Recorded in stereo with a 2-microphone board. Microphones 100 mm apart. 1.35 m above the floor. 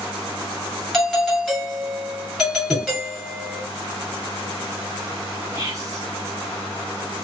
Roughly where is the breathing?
Centre.